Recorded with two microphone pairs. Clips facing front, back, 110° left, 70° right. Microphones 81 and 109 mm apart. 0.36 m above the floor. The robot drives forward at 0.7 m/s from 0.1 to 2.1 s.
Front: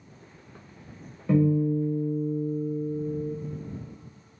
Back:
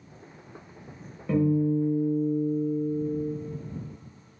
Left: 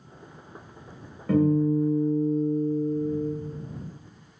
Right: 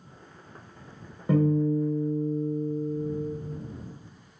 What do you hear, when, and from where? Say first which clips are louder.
1.3 s a guitar: front 1 dB, left 2 dB; 70° right, 0.7 m; by 3.3 s 155° right, 0.9 m